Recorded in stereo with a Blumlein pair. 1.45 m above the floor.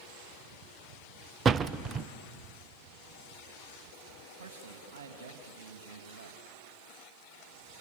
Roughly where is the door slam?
Ahead right.